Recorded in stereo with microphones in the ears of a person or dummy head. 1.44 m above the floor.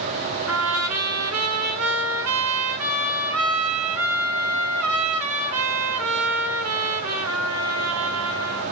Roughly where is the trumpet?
Right.